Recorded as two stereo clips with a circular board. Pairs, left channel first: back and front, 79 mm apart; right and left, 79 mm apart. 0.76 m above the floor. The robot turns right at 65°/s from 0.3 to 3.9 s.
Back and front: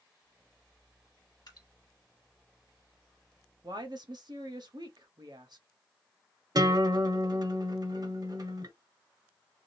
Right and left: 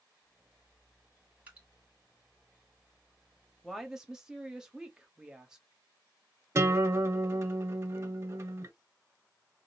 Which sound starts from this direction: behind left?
Dripping, at 1.5 s.